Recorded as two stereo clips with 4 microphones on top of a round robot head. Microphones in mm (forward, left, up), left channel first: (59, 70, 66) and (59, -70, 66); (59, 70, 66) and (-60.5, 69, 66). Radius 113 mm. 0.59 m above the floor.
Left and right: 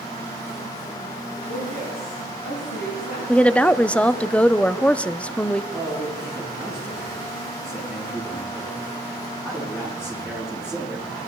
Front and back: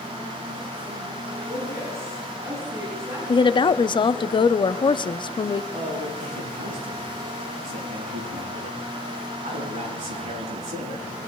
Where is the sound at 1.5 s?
110° left, 7 m.